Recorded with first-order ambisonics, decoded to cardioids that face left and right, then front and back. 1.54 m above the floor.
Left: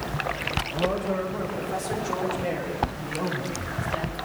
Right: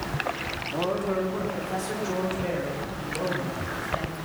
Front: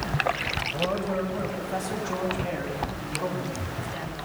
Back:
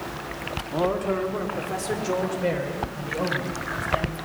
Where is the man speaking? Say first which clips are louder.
Right 2 dB, back 3 dB; 160° right, 3 m; by 4.2 s 170° left, 8 m.